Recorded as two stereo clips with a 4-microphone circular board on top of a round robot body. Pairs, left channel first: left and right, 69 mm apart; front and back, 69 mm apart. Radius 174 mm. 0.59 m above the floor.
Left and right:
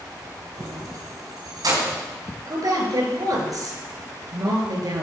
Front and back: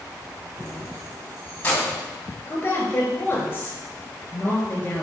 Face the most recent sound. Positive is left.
turn(degrees=-65)